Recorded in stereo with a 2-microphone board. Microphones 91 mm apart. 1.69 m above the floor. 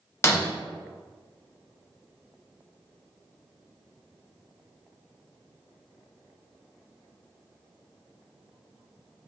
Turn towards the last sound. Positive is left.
turn(degrees=30)  # may be behind; listen again after turning